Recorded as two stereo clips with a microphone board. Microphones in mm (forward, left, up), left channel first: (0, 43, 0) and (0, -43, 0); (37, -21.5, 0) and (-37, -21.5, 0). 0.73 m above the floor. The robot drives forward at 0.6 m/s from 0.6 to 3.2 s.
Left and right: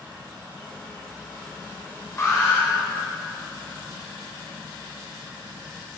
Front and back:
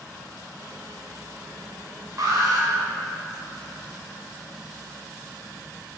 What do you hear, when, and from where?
2.2 s an alarm: 145° left, 5 m; by 2.7 s 150° left, 5 m